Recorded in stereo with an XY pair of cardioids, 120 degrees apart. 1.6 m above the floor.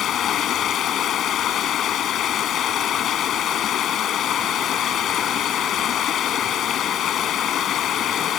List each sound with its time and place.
0.0 s running water: 60° left